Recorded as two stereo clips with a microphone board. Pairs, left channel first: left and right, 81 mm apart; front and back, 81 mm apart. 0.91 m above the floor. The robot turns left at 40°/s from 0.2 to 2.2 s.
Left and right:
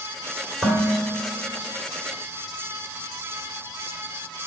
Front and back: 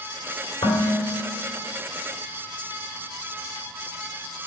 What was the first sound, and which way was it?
Dishes clattering, 10° right.